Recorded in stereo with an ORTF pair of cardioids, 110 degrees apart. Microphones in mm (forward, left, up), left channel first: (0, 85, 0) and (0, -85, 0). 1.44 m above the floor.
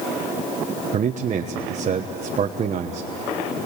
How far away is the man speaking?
About 1.2 m.